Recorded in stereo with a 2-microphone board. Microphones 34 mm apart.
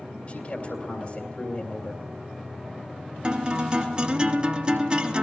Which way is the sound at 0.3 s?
45° left (ahead or behind).